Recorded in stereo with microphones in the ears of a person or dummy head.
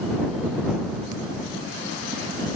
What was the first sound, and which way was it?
Only background noise.